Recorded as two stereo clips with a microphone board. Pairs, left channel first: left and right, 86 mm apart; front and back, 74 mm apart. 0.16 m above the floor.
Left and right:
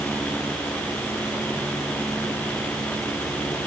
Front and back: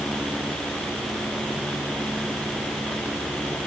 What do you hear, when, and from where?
Only background noise.